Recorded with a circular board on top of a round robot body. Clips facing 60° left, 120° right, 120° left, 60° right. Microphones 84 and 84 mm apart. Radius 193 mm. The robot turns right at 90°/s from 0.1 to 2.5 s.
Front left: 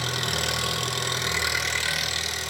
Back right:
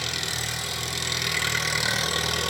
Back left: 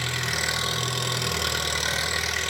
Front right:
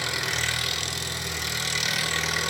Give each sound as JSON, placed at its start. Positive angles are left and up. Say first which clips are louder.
{"t": 0.0, "sound": "an engine running", "louder": "front left 4 dB, even", "azimuth_deg": 10, "distance_m": 1.4}